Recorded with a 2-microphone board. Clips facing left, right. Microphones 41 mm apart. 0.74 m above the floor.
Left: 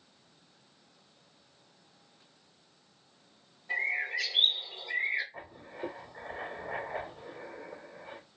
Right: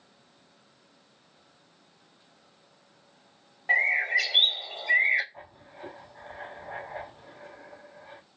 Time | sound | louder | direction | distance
3.7 | a bird | right 8 dB | 80° right | 0.8 m
5.3 | writing | left 2 dB | 70° left (ahead or behind) | 2 m